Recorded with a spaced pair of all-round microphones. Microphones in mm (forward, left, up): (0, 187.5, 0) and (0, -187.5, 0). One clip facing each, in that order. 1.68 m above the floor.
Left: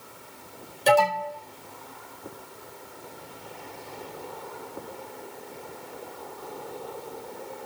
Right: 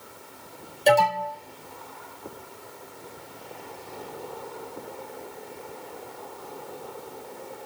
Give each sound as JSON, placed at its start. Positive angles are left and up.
{"t": 0.9, "sound": "an alarm", "side_deg": 15, "distance_m": 4.5}